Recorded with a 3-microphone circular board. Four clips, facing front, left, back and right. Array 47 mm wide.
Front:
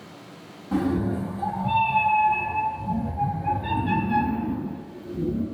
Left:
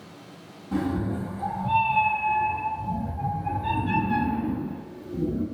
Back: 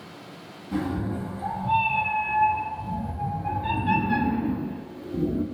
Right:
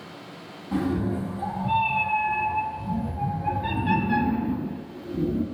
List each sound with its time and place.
0.7 s a cat meowing: 15° right, 1.8 m; by 5.5 s 175° right, 1.0 m